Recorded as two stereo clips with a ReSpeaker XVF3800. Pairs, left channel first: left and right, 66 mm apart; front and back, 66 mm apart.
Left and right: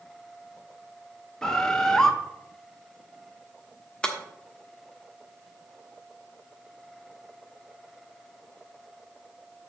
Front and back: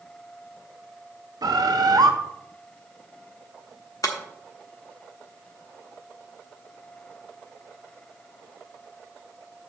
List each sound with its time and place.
1.4 s a bird: 170° left, 0.9 m
4.0 s breaking glass: 15° left, 1.2 m